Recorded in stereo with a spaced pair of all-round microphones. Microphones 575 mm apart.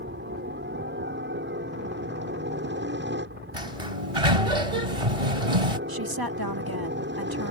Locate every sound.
0.0 s a helicopter: 20° right (ahead or behind)
3.5 s a sliding door: 70° right (ahead or behind)
5.9 s a woman speaking: 40° right (ahead or behind)